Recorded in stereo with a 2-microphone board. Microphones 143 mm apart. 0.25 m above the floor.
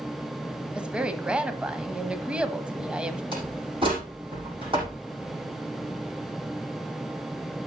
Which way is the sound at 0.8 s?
5° right (ahead or behind).